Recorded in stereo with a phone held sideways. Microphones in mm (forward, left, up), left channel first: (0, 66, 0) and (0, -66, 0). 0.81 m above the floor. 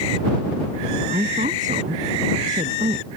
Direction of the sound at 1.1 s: 80° right.